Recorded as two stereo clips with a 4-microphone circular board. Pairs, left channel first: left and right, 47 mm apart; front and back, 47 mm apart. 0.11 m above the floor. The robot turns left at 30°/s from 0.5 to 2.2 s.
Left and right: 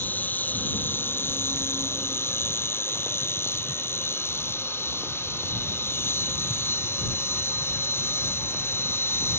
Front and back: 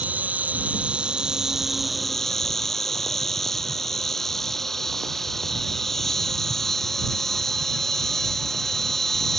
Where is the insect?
135° left; by 9.4 s 85° left.